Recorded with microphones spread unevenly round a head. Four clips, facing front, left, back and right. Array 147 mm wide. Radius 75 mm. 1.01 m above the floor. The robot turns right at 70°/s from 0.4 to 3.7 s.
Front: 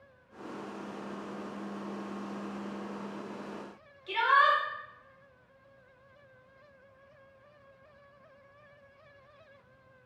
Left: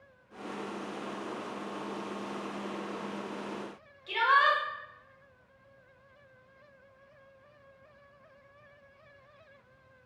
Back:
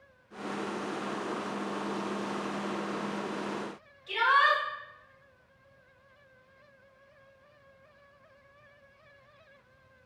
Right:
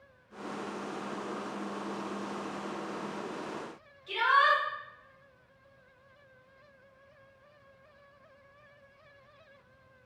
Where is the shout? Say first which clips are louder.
Even, even; 45° left, 1.3 m.